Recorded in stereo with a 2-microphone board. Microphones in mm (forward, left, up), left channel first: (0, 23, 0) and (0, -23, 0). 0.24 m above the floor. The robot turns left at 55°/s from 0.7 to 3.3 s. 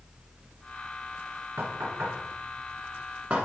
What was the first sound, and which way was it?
Knocking, 50° right (ahead or behind).